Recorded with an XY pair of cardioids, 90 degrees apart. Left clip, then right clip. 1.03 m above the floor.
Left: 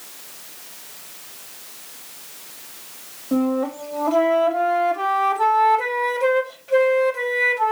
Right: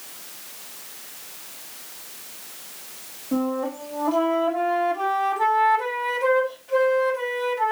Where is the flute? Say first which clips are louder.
Left 4 dB; 70° left, 4 m.